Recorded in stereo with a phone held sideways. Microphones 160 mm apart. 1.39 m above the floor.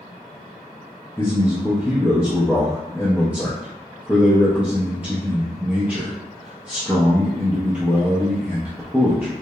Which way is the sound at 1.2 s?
10° right (ahead or behind).